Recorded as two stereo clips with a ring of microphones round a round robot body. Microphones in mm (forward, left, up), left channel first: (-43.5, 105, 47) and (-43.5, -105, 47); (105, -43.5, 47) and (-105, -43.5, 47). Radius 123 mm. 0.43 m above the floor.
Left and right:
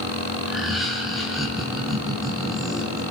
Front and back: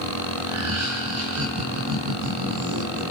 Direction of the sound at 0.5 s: Straight behind.